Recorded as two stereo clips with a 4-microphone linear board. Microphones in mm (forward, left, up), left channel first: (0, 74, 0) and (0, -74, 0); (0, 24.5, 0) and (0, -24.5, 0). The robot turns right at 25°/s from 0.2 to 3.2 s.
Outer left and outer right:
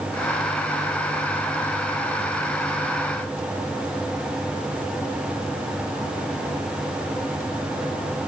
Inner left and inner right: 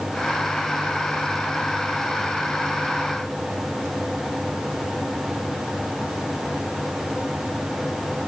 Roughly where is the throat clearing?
I don't hear throat clearing.